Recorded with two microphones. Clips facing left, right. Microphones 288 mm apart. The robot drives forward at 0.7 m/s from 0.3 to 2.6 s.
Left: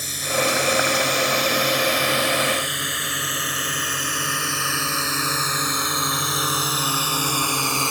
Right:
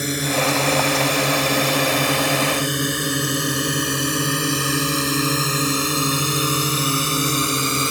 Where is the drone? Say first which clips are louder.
Right 4 dB; 65° right (ahead or behind); by 7.9 s 20° right (ahead or behind).